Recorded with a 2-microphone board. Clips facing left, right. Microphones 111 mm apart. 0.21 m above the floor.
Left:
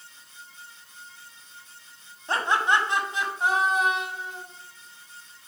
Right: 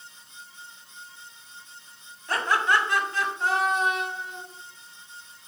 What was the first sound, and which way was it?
Laughter, 25° left (ahead or behind).